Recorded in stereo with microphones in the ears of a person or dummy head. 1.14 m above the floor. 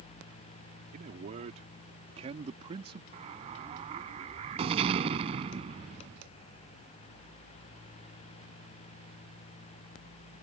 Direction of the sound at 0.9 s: 40° right (ahead or behind).